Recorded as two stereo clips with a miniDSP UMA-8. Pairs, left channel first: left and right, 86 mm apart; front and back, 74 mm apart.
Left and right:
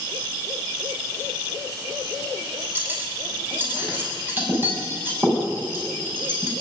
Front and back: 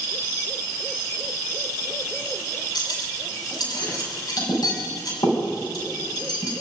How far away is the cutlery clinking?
About 6.5 m.